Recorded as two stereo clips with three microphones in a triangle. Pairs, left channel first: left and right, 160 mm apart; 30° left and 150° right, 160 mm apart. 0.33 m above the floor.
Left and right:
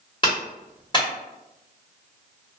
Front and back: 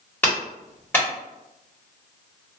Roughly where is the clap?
Left.